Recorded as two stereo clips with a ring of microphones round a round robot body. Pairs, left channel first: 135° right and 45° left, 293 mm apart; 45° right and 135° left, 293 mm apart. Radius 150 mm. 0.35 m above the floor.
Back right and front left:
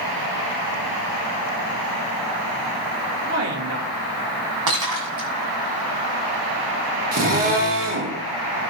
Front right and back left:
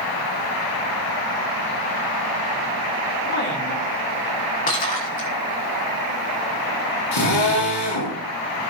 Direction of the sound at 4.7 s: 20° left.